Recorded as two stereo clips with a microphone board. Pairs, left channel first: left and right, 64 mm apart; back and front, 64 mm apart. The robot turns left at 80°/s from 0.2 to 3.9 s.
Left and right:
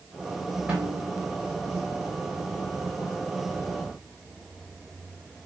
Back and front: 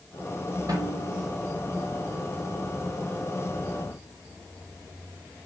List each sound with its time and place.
0.7 s a snare drum: 20° right, 3.5 m; by 1.2 s 60° right, 3.5 m